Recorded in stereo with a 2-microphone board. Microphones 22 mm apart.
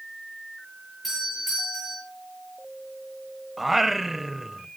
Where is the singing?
10° right (ahead or behind), 0.5 m.